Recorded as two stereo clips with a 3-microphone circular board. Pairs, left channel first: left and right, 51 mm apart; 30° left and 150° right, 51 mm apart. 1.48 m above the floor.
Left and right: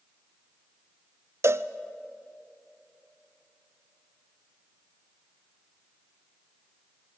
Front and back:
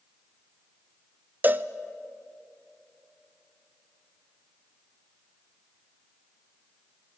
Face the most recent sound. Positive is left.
turn(degrees=-100)